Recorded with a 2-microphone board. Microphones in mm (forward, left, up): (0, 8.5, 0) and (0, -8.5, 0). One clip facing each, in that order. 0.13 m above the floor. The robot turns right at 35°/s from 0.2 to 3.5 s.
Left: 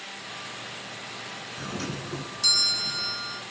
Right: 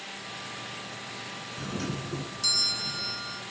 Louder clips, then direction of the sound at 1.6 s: Even; 15° left (ahead or behind).